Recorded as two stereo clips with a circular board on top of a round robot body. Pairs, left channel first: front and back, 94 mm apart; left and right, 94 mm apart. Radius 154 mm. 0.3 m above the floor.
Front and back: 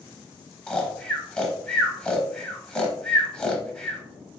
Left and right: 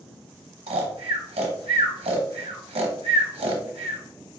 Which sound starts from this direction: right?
Snoring, at 0.7 s.